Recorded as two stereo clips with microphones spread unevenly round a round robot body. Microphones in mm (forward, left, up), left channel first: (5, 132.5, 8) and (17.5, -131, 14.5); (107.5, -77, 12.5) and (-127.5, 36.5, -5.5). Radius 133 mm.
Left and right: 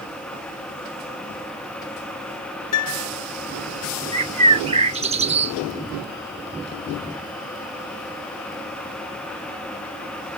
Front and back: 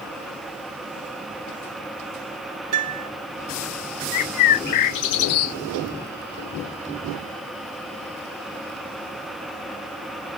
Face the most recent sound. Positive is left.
turn(degrees=-20)